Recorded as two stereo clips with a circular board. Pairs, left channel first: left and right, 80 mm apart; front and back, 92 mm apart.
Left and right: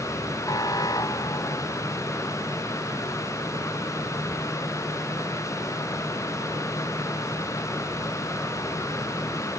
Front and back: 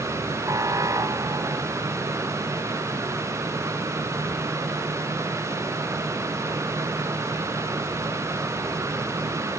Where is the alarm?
125° left.